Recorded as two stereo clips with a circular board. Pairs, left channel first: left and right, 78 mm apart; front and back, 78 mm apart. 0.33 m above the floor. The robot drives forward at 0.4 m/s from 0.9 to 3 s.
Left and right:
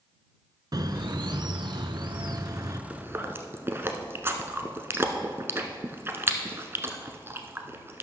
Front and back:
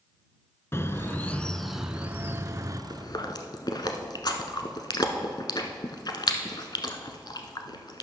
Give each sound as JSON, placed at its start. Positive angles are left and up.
{"t": 0.7, "sound": "a bird", "azimuth_deg": -55, "distance_m": 0.6}
{"t": 2.9, "sound": "chewing", "azimuth_deg": -30, "distance_m": 0.9}